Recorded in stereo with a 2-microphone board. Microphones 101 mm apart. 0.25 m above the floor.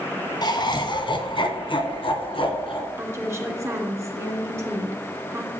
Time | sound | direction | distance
0.4 | laughter | 45° left (ahead or behind) | 1.5 m
3.0 | a woman speaking | 30° right (ahead or behind) | 2.5 m